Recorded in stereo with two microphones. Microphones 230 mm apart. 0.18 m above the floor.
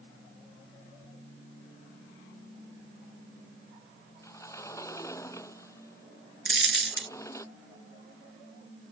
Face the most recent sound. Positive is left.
turn(degrees=-65)  # may be behind; listen again after turning